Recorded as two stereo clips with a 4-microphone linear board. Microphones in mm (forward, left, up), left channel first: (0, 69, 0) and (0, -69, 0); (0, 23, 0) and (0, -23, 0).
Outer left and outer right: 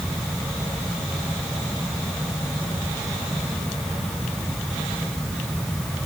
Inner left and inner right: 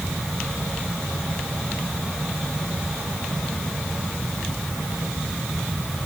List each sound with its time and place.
Only background noise.